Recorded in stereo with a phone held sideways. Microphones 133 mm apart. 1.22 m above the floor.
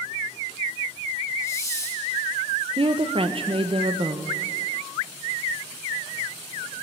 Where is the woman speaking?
45° right (ahead or behind), 0.8 m.